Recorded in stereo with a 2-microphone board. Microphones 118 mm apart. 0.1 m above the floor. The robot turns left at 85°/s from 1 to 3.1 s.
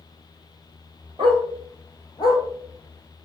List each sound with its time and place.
1.2 s a dog barking: 45° right (ahead or behind), 1.0 m; by 2.4 s 50° left (ahead or behind), 1.0 m